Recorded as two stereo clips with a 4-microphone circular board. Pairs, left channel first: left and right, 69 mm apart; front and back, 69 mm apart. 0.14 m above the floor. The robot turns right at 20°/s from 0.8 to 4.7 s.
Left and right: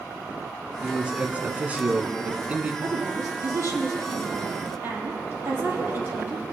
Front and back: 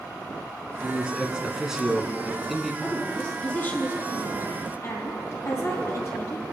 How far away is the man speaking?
About 1.1 m.